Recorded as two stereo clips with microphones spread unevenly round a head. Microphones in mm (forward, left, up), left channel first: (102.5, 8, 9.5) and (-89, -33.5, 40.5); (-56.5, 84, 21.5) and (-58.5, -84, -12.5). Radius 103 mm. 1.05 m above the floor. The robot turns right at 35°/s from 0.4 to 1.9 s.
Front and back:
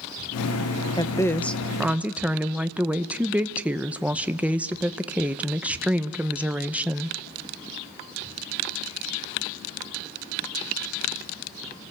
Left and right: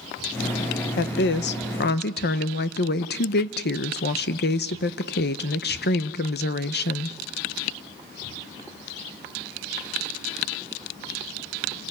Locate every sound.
1.0 s a woman speaking: 70° left, 0.8 m; by 7.2 s 105° left, 0.8 m